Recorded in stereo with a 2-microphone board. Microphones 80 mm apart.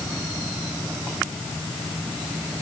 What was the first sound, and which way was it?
Only background noise.